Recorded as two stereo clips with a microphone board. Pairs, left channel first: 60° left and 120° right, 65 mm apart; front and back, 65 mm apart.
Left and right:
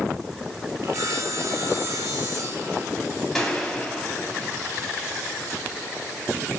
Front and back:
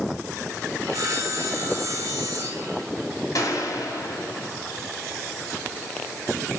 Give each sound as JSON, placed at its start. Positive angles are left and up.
{"t": 0.8, "sound": "sawing", "azimuth_deg": -145, "distance_m": 3.0}
{"t": 3.4, "sound": "a gunshot", "azimuth_deg": -25, "distance_m": 3.0}